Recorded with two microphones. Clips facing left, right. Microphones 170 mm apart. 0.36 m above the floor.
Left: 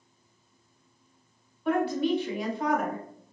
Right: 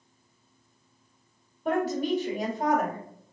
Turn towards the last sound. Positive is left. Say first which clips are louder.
# left 1 dB
turn(degrees=-40)  # may be behind; listen again after turning